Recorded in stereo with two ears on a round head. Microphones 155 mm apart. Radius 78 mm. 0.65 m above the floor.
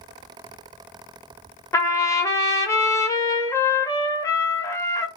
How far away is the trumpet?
About 0.6 m.